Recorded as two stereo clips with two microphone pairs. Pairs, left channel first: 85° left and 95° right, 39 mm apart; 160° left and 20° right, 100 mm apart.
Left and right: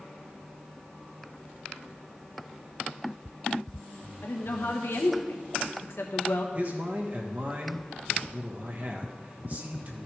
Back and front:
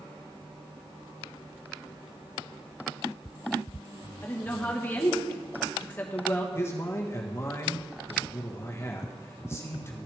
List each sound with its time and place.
4.2 s a woman speaking: 90° left, 1.3 m
6.5 s a man speaking: 135° right, 1.3 m